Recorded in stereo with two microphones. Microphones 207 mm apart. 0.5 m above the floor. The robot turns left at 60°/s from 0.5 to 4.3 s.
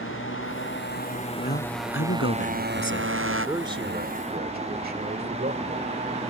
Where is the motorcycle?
80° left; by 6.3 s 150° right.